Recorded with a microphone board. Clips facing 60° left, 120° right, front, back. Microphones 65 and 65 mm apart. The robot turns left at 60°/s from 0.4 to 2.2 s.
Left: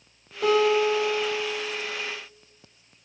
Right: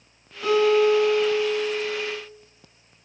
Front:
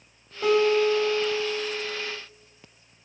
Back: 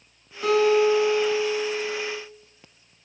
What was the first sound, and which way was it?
A guitar, 45° left.